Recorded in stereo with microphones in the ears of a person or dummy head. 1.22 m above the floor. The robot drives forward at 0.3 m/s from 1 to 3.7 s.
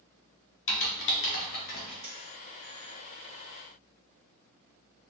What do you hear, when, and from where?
0.7 s typing on a keyboard: 60° left (ahead or behind), 0.5 m; by 1.9 s 45° left (ahead or behind), 0.6 m
2.0 s a dropped coin: 30° right (ahead or behind), 1.5 m